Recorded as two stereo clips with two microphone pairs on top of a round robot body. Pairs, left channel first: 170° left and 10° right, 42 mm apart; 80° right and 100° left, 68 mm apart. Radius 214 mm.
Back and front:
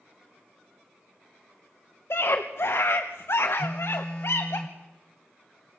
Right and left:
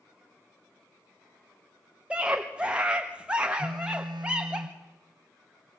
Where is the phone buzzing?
120° left, 0.7 m.